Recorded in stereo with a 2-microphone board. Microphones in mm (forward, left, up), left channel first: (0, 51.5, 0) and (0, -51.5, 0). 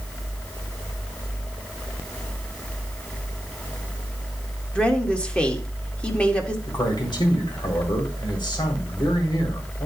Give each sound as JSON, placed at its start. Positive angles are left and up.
{"t": 4.8, "sound": "a woman speaking", "side_deg": 10, "distance_m": 1.7}
{"t": 6.7, "sound": "a man speaking", "side_deg": 50, "distance_m": 3.0}